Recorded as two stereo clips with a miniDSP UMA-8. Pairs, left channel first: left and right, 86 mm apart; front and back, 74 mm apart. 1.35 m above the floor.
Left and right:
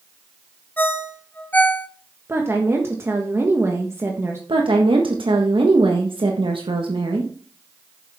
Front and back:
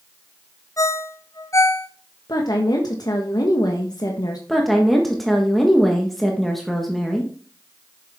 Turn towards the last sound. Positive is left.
turn(degrees=-85)